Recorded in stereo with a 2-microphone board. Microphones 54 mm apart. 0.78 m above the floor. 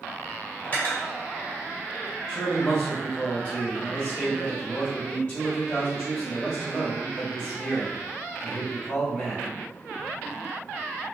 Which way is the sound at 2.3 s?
25° left (ahead or behind).